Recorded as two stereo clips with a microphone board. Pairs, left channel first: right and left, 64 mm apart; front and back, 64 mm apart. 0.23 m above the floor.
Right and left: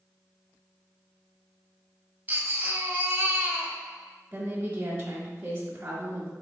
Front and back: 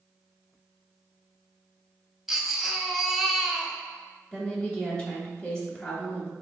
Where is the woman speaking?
70° left, 1.0 m.